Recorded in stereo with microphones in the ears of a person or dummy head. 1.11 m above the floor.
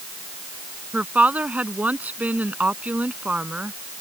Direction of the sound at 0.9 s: 5° right (ahead or behind).